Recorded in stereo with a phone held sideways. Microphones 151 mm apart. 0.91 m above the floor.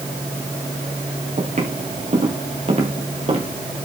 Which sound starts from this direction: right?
Footsteps, at 1.4 s.